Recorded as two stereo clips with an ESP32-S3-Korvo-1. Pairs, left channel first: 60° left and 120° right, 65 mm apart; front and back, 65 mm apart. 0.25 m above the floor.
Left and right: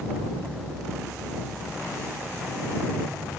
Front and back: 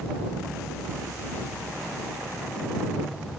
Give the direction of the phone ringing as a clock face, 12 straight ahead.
I don't hear a phone ringing.